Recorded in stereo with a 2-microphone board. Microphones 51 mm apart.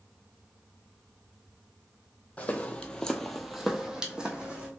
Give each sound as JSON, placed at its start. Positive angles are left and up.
{"t": 2.4, "sound": "footsteps", "side_deg": 30, "distance_m": 0.7}